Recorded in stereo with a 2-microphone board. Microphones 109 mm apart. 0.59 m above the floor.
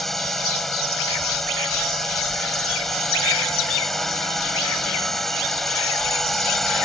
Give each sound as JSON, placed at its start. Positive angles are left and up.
{"t": 0.0, "sound": "a drone", "side_deg": 0}